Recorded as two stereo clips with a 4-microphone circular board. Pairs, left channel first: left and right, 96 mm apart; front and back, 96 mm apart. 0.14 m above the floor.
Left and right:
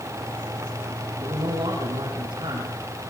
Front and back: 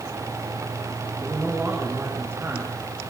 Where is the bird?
No bird in this recording.